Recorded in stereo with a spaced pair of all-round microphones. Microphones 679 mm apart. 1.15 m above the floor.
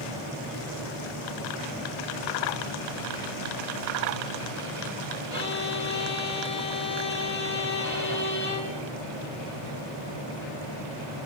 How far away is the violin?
About 5 m.